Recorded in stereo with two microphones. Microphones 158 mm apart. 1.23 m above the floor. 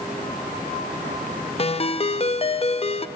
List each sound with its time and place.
1.6 s a ringtone: 40° left (ahead or behind), 0.7 m